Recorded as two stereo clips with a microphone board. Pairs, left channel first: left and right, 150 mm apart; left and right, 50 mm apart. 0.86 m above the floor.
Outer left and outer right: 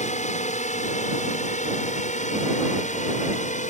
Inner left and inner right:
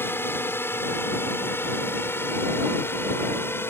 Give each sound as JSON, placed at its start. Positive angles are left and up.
{"t": 0.0, "sound": "a drone", "side_deg": 50}